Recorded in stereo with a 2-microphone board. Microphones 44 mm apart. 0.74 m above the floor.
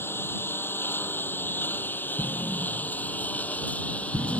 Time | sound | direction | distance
0.0 | a lawn mower | 60° left (ahead or behind) | ?
2.2 | an explosion | 30° left (ahead or behind) | ?